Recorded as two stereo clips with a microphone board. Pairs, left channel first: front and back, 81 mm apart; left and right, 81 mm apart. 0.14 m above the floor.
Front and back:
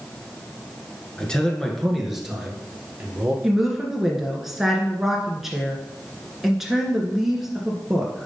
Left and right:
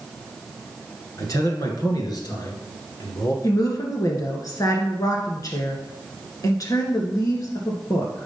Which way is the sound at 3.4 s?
95° left.